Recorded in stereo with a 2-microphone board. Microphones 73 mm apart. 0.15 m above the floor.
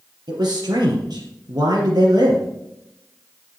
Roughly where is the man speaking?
Right.